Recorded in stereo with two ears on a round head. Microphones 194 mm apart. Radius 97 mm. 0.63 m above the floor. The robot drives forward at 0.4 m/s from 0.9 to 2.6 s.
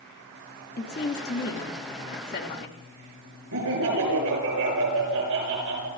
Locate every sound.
0.8 s a woman speaking: 45° left (ahead or behind), 1.5 m
3.5 s laughter: 80° right, 6.5 m